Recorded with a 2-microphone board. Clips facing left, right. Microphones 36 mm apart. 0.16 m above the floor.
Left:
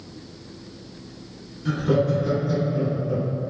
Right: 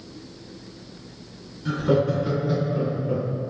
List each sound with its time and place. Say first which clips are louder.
1.6 s laughter: even; centre (ahead or behind), 1.6 m; by 3.5 s 45° right (ahead or behind), 2 m